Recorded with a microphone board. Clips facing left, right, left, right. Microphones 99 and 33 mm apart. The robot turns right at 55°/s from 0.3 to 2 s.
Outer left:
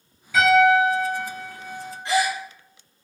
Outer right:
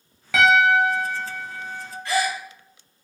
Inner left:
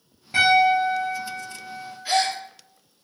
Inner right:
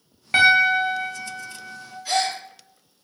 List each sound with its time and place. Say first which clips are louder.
0.3 s a piano: outer left 1 dB, inner right 1 dB; 95° right, 0.9 m; by 1.9 s 10° right, 0.9 m
2.0 s a gasp: outer left 1 dB, inner left 1 dB; 20° left (ahead or behind), 1.0 m